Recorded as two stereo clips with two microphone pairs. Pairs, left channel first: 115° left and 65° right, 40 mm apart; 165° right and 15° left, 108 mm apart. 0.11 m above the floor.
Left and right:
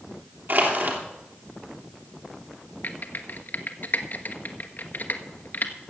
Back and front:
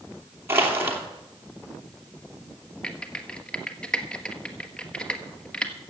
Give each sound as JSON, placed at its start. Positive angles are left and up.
{"t": 0.5, "sound": "crushing", "azimuth_deg": -50, "distance_m": 3.0}
{"t": 2.8, "sound": "typing on a keyboard", "azimuth_deg": 115, "distance_m": 1.2}